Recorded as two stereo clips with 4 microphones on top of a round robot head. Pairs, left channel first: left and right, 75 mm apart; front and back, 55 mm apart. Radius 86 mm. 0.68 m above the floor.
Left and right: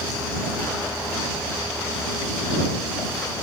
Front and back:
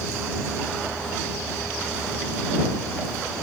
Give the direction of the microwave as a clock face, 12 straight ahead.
I don't hear a microwave.